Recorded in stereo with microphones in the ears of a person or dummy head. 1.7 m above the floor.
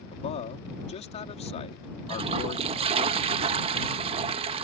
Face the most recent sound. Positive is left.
turn(degrees=-35)  # may be behind; listen again after turning